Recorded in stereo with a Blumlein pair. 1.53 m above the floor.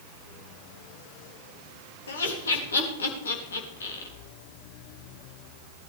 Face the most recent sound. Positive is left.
turn(degrees=70)